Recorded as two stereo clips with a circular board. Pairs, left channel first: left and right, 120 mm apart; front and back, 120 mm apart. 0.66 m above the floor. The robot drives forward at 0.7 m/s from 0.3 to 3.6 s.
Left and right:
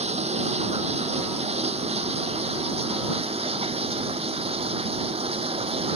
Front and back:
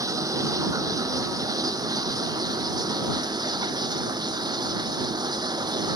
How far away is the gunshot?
I don't hear a gunshot.